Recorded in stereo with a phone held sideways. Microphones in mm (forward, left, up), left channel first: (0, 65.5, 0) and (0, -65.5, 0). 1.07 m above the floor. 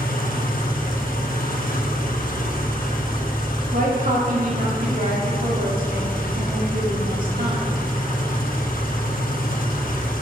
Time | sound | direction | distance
0.0 | an engine running | 85° left | 0.8 m
3.7 | a woman speaking | 75° right (ahead or behind) | 1.8 m